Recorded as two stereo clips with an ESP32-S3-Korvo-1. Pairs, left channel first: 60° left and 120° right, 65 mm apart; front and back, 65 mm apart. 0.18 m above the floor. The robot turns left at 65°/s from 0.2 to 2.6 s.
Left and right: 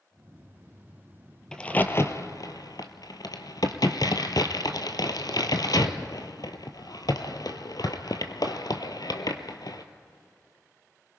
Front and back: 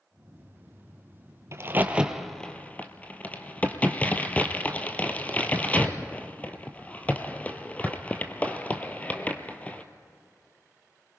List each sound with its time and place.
1.5 s a crack: 135° left, 1.1 m; by 9.8 s 65° left, 1.1 m